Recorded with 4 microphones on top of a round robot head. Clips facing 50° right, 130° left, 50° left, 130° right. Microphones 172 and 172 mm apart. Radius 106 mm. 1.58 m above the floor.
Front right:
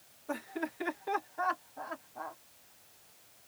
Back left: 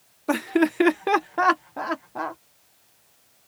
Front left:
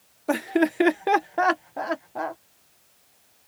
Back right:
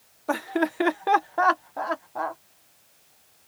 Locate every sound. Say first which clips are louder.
0.3 s laughter: back left 17 dB, front left 4 dB; 120° left